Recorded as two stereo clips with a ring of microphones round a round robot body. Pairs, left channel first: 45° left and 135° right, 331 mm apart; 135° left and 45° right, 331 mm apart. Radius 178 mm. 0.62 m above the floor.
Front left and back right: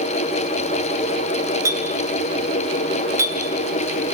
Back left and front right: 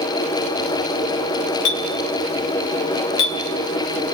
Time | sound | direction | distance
1.6 | a clink | 145° left | 3 m